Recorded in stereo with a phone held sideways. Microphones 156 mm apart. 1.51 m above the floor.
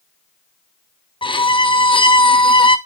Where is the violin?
30° left (ahead or behind), 0.6 m.